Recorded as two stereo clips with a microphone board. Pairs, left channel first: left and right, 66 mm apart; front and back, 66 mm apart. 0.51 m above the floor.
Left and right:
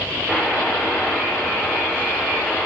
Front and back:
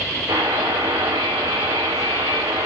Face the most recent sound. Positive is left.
turn(degrees=-170)